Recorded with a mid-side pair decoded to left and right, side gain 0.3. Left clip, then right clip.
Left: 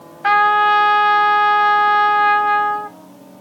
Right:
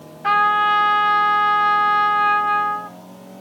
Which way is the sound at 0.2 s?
70° left.